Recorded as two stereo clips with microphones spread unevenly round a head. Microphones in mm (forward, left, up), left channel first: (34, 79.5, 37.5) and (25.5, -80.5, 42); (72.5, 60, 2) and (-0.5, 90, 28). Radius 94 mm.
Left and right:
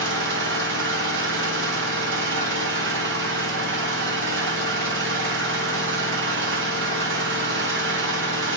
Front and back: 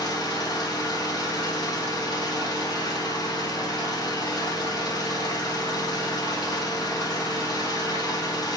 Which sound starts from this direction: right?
An engine running, at 0.0 s.